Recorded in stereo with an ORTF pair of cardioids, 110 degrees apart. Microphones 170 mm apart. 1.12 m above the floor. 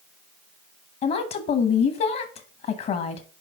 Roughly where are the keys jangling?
No keys jangling in this recording.